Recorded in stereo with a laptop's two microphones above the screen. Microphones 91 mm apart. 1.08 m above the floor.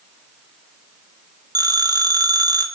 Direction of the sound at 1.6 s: 45° right (ahead or behind).